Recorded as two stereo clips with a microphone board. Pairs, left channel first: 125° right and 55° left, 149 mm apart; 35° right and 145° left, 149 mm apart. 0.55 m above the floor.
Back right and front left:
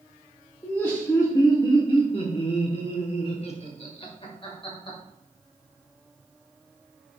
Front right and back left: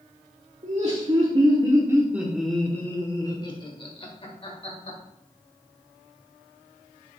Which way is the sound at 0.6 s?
160° left.